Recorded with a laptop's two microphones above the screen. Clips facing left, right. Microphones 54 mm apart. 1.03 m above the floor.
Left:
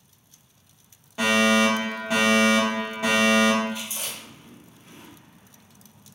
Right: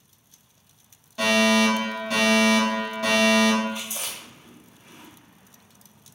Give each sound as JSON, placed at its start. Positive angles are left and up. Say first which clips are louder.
{"t": 1.2, "sound": "a fire alarm", "louder": "even", "side_deg": 20, "distance_m": 1.0}
{"t": 3.7, "sound": "chewing", "louder": "even", "side_deg": -50, "distance_m": 0.9}